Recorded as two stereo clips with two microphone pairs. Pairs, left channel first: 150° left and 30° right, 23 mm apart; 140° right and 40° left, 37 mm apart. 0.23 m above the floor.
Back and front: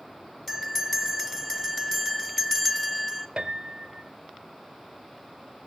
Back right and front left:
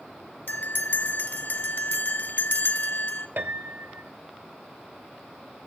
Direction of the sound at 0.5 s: 140° right.